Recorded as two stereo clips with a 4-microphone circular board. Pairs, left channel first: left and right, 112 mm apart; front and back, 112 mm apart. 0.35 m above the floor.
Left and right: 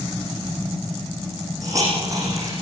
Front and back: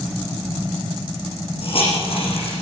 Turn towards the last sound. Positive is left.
turn(degrees=-30)